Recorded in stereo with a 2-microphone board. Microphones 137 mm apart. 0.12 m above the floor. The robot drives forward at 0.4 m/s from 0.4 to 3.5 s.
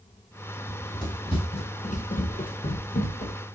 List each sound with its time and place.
0.7 s running footsteps: 20° left (ahead or behind), 2 m; by 3.4 s 60° left (ahead or behind), 1.7 m